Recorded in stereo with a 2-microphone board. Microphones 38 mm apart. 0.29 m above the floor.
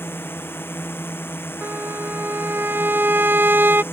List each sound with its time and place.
0.0 s a drone: 80° left
1.6 s a violin: 60° right (ahead or behind)